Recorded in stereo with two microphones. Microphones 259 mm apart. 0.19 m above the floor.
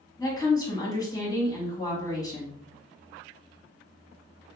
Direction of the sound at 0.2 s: 15° left (ahead or behind).